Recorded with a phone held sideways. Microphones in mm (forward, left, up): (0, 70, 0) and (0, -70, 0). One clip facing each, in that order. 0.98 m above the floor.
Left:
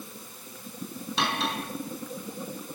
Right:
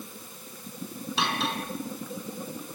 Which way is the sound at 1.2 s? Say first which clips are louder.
Even; centre (ahead or behind).